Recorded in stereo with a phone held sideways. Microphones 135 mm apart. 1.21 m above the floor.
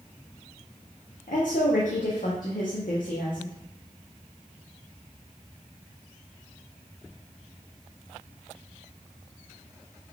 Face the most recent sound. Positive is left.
turn(degrees=80)